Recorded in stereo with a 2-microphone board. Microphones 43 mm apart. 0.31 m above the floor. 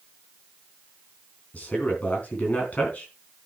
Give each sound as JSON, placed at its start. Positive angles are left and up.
{"t": 1.5, "sound": "a man speaking", "side_deg": 40, "distance_m": 3.0}